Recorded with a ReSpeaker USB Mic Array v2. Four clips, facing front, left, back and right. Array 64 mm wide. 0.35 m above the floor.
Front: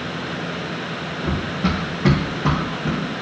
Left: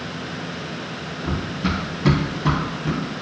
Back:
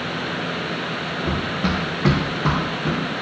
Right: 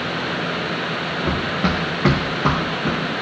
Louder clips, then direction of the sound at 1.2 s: Right 3 dB, front 1 dB; 100° right.